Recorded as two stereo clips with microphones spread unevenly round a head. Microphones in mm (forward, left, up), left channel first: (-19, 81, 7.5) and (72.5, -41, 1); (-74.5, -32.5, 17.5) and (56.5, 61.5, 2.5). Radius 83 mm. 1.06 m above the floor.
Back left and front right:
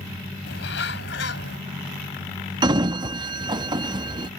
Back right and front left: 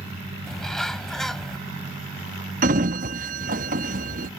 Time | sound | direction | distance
0.5 | a bird | 130° left | ?
2.6 | a sliding door | 5° left | ?